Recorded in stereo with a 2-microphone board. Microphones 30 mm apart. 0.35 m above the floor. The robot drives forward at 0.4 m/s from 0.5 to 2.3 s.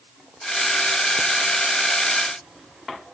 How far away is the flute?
No flute in this recording.